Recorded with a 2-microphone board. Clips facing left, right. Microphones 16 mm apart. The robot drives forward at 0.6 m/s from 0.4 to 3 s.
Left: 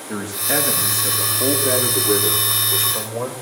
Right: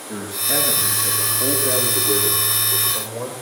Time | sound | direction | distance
0.1 | a man speaking | 65° left (ahead or behind) | 9.5 m